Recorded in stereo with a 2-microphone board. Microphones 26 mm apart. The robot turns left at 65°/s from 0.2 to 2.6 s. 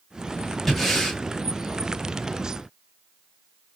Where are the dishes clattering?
I don't hear dishes clattering.